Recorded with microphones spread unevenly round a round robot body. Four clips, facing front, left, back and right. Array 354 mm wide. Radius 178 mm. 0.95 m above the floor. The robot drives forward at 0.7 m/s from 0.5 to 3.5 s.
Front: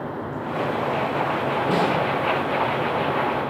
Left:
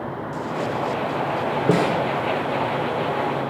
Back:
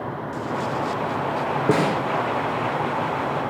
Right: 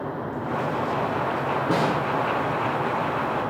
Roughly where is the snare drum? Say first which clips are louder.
Left 4 dB, back 2 dB; behind left.